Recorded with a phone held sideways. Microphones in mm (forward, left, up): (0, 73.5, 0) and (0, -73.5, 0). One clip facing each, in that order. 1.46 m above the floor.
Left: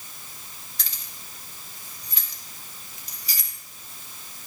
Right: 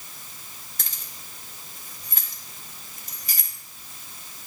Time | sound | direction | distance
0.8 | keys jangling | 50° right (ahead or behind) | 1.3 m